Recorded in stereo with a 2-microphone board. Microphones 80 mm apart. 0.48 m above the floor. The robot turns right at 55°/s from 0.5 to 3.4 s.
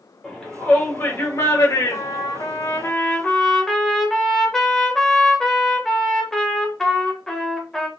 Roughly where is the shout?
Centre.